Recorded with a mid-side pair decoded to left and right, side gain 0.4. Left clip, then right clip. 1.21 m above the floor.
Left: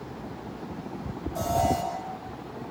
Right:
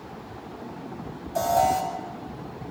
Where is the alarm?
60° right, 9.5 m.